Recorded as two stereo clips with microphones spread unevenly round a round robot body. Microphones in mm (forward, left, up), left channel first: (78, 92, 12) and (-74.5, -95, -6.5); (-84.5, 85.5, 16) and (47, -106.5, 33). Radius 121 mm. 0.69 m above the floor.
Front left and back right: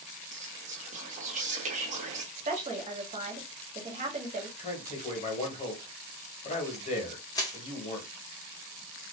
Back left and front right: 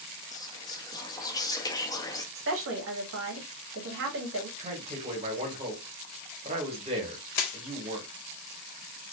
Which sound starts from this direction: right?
A woman speaking, at 2.4 s.